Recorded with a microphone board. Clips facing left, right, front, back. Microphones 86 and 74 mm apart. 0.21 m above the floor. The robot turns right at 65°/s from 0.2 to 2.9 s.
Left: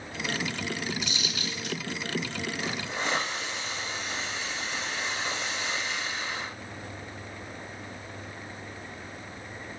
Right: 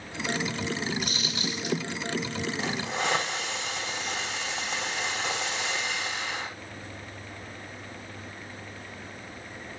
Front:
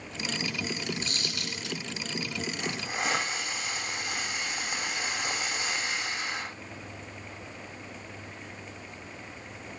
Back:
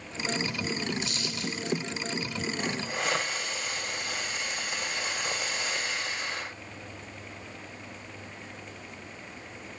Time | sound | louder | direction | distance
1.0 | a dropped coin | right 2 dB, back 2 dB | 55° right | 2.5 m
2.6 | a hiss | right 3 dB, even | 90° right | 6.5 m